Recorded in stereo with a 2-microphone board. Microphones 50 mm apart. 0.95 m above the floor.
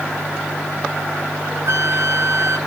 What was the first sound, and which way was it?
A flute, 65° right (ahead or behind).